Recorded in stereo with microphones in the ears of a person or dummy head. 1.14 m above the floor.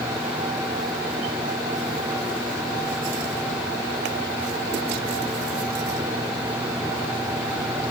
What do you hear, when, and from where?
Only background noise.